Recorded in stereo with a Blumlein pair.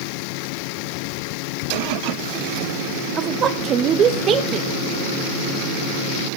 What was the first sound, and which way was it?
A woman speaking, 25° right.